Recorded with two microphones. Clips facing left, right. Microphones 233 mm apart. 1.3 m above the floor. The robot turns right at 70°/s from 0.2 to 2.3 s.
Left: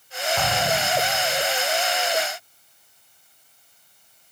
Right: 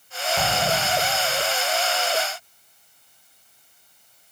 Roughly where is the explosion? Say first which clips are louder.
Even; behind.